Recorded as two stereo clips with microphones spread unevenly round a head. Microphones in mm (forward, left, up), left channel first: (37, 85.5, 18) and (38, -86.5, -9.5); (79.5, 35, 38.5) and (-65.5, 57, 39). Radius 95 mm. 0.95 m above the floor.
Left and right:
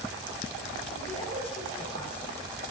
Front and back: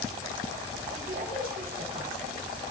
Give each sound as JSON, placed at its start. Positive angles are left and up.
{"t": 0.9, "sound": "a woman speaking", "azimuth_deg": 155, "distance_m": 2.0}